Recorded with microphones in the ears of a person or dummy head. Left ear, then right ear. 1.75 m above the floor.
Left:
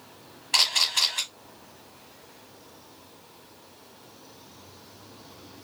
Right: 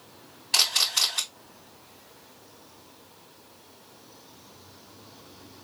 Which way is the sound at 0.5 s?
10° left (ahead or behind).